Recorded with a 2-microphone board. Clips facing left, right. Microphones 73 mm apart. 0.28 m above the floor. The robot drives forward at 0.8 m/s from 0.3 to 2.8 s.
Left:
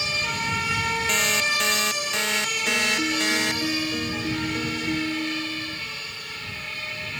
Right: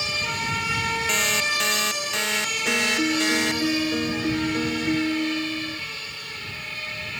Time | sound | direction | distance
1.1 | an alarm clock | centre (ahead or behind) | ?
2.6 | a piano | 25° right (ahead or behind) | ?